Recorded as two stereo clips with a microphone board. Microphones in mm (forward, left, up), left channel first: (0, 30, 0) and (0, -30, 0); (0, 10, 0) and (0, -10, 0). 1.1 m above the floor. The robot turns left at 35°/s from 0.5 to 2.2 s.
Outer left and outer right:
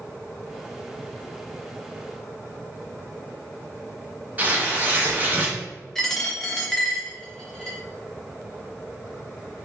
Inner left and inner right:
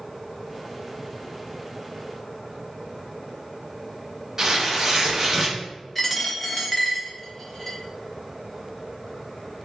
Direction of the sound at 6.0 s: 10° left (ahead or behind).